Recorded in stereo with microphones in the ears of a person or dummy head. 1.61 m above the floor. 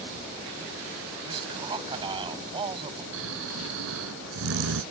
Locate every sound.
1.3 s a man speaking: 25° right (ahead or behind)
3.1 s snoring: 75° right (ahead or behind)